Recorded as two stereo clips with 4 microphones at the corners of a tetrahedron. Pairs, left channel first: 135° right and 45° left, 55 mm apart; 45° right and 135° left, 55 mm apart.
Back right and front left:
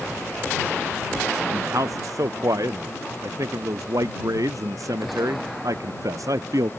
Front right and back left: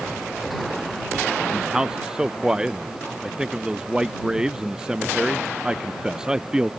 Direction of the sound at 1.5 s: 55° left.